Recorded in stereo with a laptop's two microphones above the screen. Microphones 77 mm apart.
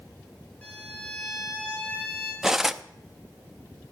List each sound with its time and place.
0.6 s a violin: 15° left (ahead or behind), 4 m
2.4 s cutlery clinking: 5° right (ahead or behind), 0.6 m